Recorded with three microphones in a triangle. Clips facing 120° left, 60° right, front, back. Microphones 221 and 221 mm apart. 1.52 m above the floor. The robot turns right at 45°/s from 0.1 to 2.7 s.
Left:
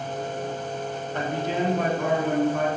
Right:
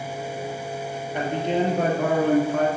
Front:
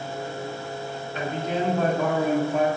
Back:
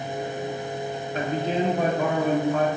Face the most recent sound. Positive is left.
turn(degrees=-65)